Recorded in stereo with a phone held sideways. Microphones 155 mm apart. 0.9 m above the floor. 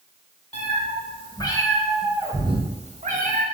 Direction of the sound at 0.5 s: 45° left (ahead or behind).